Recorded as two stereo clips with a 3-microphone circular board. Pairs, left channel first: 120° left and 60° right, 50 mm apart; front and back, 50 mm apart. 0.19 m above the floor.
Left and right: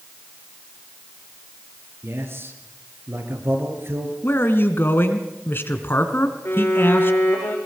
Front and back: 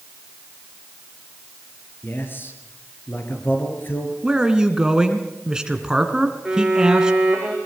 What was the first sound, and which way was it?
A man speaking, 40° right.